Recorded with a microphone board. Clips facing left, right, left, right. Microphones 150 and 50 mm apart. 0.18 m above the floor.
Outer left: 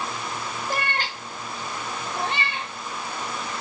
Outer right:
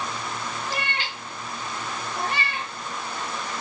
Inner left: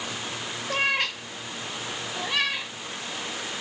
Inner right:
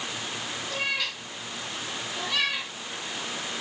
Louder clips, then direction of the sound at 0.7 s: Outer left 3 dB, inner left 6 dB; 50° left (ahead or behind).